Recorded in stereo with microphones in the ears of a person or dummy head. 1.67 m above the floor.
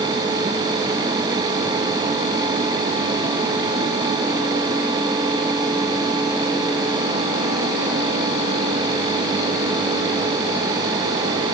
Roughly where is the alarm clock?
No alarm clock in this recording.